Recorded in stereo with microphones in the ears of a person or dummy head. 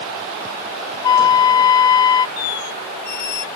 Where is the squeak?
60° left (ahead or behind).